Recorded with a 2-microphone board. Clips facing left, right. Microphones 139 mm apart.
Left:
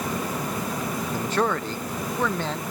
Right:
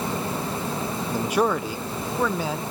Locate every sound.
1.1 s a man speaking: 15° right (ahead or behind); by 2.6 s 10° right (ahead or behind)